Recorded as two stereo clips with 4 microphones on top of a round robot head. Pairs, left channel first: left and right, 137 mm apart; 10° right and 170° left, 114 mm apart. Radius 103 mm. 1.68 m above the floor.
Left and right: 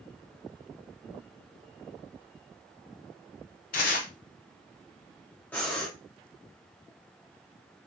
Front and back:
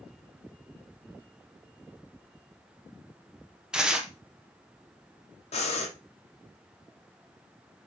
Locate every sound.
3.7 s tearing paper: 90° left, 1.0 m
5.5 s breathing: 10° left, 1.0 m